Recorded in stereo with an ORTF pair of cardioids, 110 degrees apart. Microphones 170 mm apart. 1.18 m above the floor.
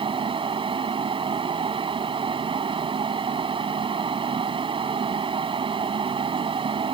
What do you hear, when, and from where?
0.0 s a fan: 35° right